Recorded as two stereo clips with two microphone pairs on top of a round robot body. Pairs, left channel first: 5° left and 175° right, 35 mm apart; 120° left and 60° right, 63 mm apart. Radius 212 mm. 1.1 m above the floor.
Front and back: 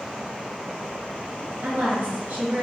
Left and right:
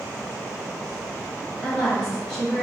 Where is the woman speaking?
155° right, 1.5 m.